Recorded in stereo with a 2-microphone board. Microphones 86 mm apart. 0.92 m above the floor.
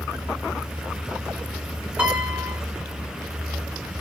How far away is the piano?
About 2.5 m.